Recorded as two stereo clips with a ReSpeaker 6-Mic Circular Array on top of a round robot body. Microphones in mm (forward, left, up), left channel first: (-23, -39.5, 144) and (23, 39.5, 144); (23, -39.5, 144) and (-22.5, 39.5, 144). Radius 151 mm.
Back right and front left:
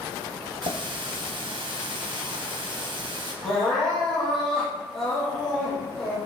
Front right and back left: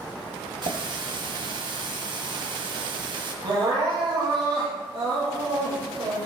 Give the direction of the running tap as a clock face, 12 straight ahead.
9 o'clock.